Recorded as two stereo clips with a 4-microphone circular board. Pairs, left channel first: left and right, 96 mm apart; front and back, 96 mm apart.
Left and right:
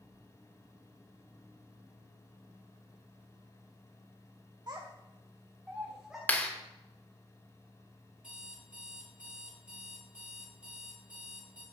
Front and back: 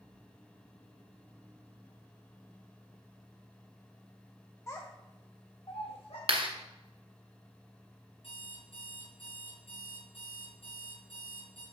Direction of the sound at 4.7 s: 55° right.